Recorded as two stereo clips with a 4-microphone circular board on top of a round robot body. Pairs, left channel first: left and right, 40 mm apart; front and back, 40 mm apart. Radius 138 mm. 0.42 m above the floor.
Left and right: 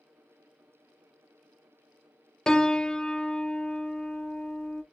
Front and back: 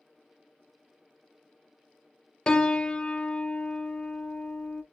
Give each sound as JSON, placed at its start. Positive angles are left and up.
{"t": 2.5, "sound": "a piano", "azimuth_deg": 40, "distance_m": 0.6}